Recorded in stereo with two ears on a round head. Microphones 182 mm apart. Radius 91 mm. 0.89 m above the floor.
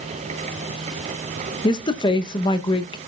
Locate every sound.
1.6 s a woman speaking: 20° left (ahead or behind), 0.9 m